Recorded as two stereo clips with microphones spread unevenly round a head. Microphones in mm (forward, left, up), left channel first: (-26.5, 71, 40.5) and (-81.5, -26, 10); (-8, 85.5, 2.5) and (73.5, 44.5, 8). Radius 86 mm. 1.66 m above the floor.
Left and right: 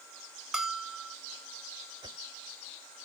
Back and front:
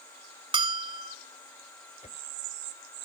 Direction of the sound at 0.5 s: 25° right.